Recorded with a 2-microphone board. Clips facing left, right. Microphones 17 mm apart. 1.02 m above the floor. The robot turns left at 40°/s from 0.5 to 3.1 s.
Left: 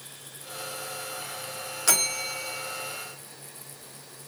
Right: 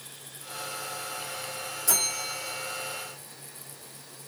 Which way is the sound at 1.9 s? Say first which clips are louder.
Left 3 dB; 60° left.